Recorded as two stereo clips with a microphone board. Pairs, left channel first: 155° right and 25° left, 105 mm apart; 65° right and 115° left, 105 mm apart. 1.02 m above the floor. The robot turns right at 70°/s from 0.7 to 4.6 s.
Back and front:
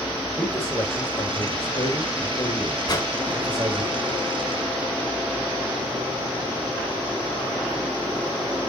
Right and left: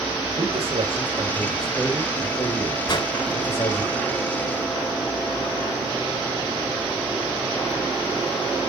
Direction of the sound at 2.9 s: 115° right.